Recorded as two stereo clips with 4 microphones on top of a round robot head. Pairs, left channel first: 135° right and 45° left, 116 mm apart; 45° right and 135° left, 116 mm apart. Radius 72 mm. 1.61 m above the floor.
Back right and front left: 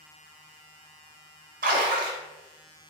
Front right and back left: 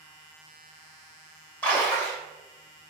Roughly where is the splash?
Ahead left.